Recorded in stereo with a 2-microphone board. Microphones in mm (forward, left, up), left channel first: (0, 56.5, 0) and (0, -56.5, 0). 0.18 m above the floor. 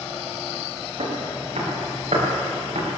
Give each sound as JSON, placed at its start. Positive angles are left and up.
{"t": 1.0, "sound": "footsteps", "side_deg": -75, "distance_m": 7.0}